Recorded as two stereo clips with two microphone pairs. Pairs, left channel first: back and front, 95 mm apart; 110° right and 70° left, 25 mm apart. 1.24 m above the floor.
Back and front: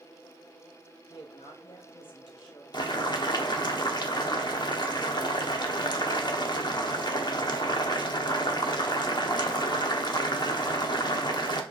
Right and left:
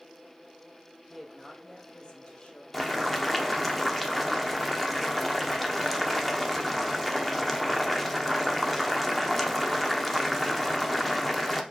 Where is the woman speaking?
160° left, 1.8 m; by 2.6 s 140° right, 2 m.